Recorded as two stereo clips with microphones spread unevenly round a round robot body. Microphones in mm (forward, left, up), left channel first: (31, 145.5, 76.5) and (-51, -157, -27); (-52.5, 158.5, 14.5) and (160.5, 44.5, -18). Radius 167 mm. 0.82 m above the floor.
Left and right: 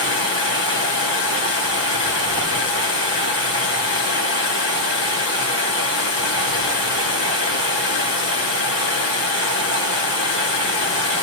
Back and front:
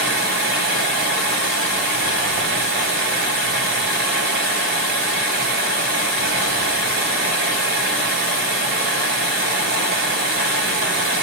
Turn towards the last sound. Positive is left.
turn(degrees=15)